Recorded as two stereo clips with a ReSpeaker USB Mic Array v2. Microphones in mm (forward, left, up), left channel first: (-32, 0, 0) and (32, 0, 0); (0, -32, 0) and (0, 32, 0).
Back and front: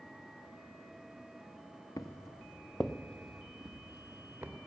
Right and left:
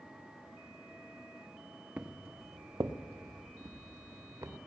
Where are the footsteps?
155° left, 0.7 m; by 4.5 s 65° left, 1.6 m.